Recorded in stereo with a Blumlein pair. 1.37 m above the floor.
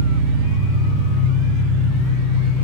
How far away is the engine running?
About 1.9 m.